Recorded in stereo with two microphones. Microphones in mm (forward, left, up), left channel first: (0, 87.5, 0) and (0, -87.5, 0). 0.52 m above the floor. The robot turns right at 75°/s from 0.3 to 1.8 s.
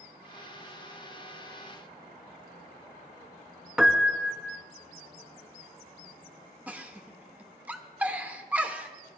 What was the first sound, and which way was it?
A piano, 5° right (ahead or behind).